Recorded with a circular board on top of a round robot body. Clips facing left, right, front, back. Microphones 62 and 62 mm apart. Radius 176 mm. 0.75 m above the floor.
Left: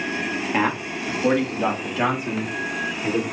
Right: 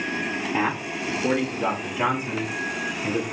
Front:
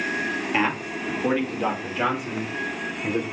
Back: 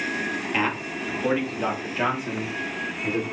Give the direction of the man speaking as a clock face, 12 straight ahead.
9 o'clock.